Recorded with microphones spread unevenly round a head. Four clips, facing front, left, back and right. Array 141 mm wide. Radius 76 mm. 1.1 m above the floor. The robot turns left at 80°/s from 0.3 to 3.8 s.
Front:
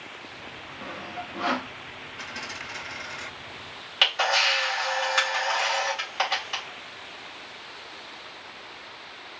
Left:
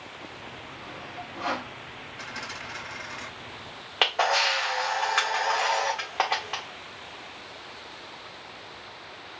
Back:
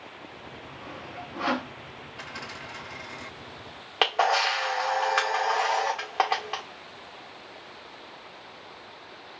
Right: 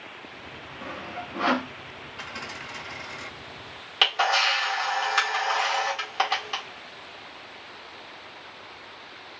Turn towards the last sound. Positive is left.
turn(degrees=155)